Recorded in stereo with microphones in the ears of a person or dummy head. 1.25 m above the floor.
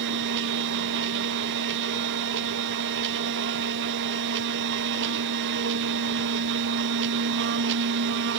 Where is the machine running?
60° right (ahead or behind), 1.5 m.